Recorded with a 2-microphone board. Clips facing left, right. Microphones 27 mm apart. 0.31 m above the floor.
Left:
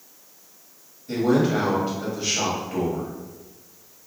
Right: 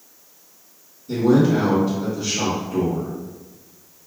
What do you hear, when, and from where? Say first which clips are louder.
1.1 s a man speaking: right 4 dB; 45° left (ahead or behind), 1.2 m